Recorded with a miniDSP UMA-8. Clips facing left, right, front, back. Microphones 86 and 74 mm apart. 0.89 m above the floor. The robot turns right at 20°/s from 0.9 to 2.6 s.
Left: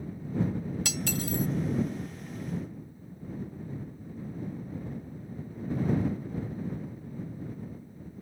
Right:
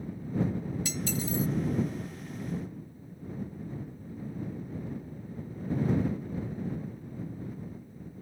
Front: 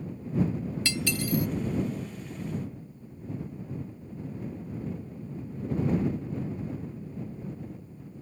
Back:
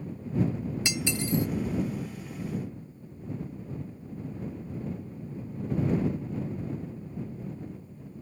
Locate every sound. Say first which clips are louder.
0.8 s cutlery clinking: even, front 1 dB; 110° left; by 1.5 s 120° left